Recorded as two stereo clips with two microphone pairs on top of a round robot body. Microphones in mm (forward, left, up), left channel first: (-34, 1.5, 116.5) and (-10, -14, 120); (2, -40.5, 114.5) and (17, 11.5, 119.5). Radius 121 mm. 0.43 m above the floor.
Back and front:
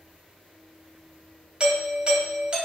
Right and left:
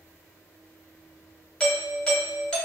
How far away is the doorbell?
About 1.3 m.